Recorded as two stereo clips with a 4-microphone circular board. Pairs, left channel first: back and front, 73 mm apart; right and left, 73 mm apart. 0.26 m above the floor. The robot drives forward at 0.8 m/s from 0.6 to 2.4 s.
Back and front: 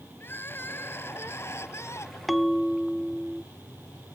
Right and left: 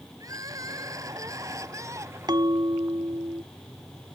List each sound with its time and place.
0.2 s crying: 120° left; by 2.2 s 130° left
2.3 s a bell: 90° left